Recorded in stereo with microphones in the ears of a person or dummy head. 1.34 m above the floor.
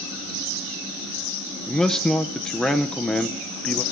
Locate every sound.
1.7 s a man speaking: 5° left (ahead or behind), 0.7 m